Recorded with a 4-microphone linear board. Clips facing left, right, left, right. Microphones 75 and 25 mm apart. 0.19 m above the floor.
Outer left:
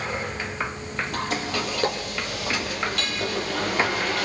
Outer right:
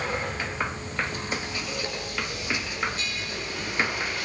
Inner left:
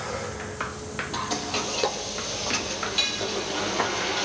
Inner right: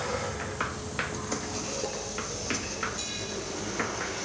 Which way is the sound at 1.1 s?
80° left.